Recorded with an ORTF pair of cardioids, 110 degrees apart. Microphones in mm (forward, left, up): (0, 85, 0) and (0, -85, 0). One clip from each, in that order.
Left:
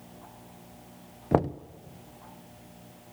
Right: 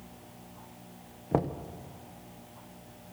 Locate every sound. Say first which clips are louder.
1.3 s knocking: left 4 dB; 45° left, 0.7 m